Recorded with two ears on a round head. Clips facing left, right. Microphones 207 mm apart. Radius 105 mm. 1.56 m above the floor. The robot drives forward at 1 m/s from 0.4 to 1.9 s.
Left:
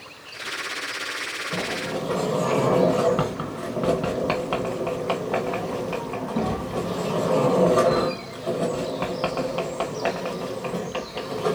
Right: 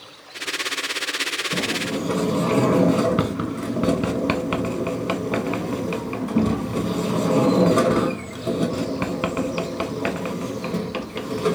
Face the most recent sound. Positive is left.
turn(degrees=-30)  # may be behind; listen again after turning